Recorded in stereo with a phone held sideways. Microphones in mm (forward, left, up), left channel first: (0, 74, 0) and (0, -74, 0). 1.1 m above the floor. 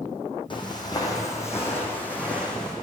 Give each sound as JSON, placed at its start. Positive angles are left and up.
{"t": 0.5, "sound": "footsteps", "side_deg": 35, "distance_m": 2.0}